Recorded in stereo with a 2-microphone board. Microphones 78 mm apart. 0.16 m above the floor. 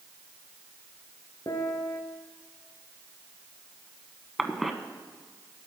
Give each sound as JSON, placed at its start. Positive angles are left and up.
{"t": 1.5, "sound": "a piano", "side_deg": 55, "distance_m": 1.2}
{"t": 4.4, "sound": "a cough", "side_deg": 0, "distance_m": 1.1}